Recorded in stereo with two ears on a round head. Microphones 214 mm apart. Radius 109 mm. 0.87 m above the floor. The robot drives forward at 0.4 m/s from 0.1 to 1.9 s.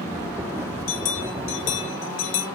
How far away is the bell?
About 1.8 m.